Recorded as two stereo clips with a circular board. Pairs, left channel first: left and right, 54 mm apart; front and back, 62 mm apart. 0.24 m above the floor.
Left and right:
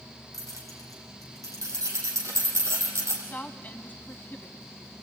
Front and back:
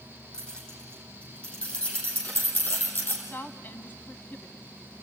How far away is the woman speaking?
About 1.4 m.